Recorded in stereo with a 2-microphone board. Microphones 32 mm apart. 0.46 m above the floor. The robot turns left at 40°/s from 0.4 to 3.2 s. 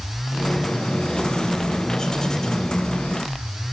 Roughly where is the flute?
I don't hear a flute.